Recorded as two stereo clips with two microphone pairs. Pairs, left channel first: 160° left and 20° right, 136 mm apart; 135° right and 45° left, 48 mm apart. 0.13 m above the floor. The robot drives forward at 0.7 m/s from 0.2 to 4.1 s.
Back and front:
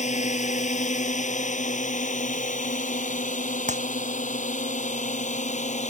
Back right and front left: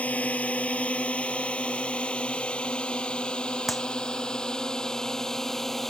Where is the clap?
45° right.